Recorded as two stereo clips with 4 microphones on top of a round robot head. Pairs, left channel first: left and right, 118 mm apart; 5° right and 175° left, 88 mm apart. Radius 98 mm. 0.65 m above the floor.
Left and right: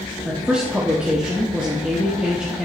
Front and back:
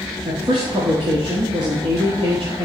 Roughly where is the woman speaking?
Behind.